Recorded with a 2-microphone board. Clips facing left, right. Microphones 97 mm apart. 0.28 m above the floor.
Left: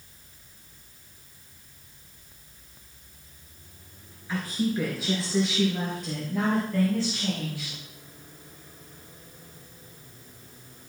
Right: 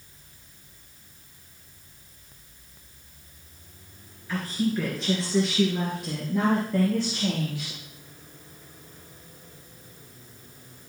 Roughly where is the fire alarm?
I don't hear a fire alarm.